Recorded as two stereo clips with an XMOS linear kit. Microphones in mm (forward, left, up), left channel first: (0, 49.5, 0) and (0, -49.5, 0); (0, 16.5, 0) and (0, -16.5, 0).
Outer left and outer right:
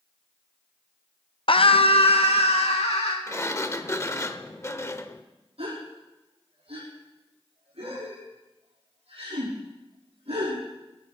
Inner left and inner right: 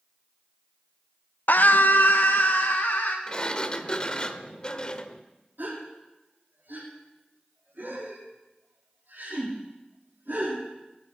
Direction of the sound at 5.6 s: 80° right.